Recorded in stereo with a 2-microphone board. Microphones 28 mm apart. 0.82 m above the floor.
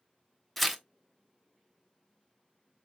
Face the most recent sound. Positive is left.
turn(degrees=5)  # may be behind; listen again after turning